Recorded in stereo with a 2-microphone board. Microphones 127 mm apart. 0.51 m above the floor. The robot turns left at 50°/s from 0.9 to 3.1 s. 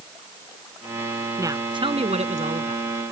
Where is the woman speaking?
25° right; by 2.8 s 95° right.